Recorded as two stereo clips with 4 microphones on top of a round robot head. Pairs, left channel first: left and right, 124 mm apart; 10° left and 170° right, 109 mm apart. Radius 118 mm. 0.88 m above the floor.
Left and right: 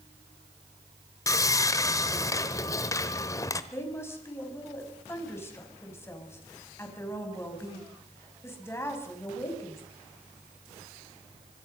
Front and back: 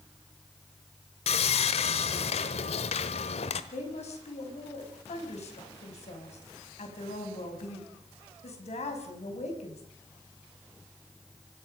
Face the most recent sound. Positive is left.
turn(degrees=20)